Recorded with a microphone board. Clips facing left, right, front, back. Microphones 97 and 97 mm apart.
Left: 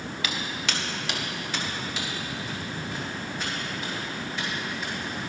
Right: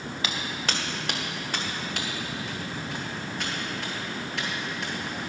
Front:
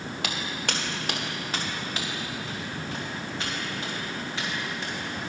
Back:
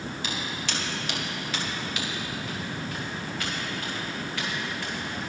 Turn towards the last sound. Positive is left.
turn(degrees=-70)